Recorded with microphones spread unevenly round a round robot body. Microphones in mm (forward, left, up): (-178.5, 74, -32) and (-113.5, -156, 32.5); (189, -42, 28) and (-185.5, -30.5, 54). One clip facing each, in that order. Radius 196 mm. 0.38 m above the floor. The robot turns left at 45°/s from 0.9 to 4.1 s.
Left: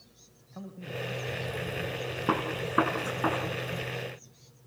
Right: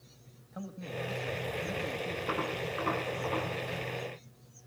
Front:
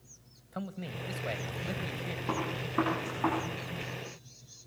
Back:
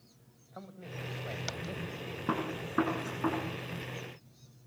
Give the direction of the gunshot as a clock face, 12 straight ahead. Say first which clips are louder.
Left 7 dB, back 1 dB; 8 o'clock.